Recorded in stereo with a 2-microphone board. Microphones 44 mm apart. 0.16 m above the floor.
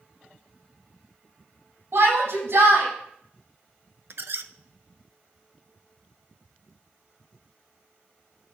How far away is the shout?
About 6.5 m.